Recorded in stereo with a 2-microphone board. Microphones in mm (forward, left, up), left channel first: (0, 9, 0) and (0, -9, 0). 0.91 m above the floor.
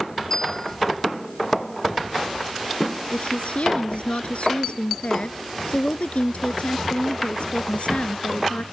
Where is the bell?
35° left (ahead or behind).